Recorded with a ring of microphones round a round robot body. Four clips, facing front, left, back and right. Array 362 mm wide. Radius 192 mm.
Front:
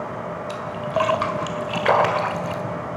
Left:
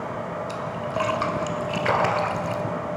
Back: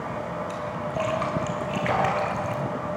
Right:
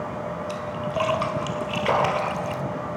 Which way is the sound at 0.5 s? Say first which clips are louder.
Even, front 4 dB; 10° right.